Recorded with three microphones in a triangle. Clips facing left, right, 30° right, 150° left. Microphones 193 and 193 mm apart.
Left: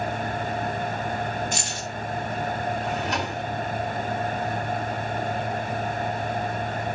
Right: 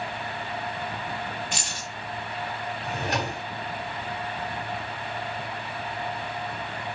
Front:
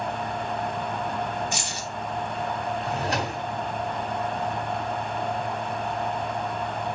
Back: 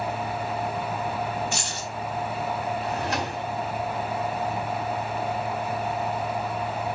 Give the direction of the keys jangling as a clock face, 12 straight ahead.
11 o'clock.